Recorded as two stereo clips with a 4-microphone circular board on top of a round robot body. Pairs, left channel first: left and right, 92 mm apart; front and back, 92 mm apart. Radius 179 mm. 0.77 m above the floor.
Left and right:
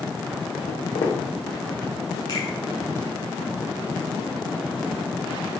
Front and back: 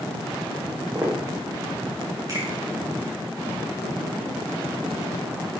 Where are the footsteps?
110° left, 3 m.